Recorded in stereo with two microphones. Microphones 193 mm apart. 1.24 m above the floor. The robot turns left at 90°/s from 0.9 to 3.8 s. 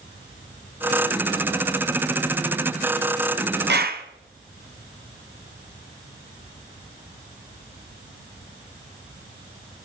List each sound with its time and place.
3.7 s a clap: 65° right (ahead or behind), 0.8 m; by 4.0 s 55° right (ahead or behind), 0.8 m